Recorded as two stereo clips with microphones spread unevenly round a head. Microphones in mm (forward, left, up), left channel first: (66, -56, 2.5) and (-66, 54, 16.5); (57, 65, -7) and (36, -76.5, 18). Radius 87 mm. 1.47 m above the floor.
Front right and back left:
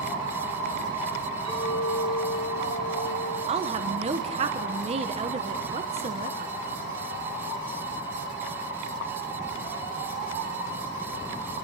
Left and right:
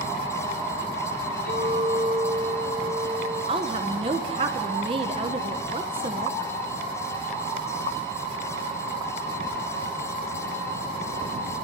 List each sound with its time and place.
1.4 s a clink: 75° left, 7.5 m
3.5 s a woman speaking: 165° right, 1.3 m